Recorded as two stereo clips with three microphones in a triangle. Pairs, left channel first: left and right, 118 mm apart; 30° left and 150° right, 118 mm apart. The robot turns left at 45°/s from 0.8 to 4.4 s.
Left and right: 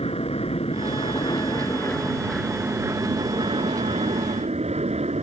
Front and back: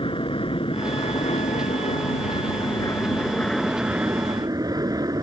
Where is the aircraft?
65° left; by 5.2 s 95° right.